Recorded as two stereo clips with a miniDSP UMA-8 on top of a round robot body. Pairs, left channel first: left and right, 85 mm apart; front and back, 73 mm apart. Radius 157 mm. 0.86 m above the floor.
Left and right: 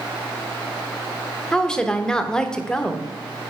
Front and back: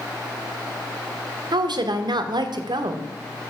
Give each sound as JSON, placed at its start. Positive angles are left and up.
{"t": 1.5, "sound": "a woman speaking", "azimuth_deg": 170, "distance_m": 1.1}